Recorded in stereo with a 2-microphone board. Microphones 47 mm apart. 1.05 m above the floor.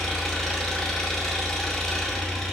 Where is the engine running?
10° left (ahead or behind), 0.7 m.